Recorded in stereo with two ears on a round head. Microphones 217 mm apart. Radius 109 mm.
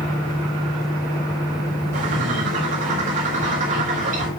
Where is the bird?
35° right (ahead or behind), 4.5 m.